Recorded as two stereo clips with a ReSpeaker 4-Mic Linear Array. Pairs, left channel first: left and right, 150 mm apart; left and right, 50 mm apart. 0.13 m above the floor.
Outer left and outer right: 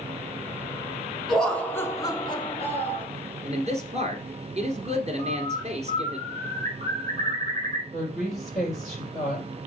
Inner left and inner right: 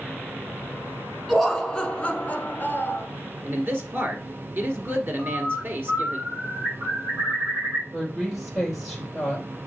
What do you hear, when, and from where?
1.3 s laughter: centre (ahead or behind), 1.2 m; by 3.0 s 45° left (ahead or behind), 1.6 m
3.5 s a man speaking: 45° right (ahead or behind), 1.7 m
5.2 s a bird: 50° right (ahead or behind), 1.6 m
7.9 s a woman speaking: centre (ahead or behind), 4 m